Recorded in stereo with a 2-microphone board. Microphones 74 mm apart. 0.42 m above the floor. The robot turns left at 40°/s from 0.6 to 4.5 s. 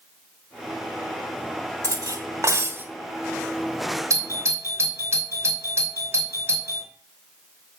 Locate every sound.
1.8 s cutlery clinking: 105° right, 1.0 m; by 2.9 s 145° right, 1.0 m
4.1 s a doorbell: 45° right (ahead or behind), 3 m; by 6.9 s 35° right (ahead or behind), 3 m